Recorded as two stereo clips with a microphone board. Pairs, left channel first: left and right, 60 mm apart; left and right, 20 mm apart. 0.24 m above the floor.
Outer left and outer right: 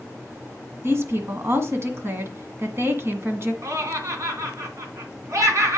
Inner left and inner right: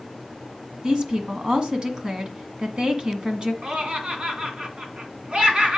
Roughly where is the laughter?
Right.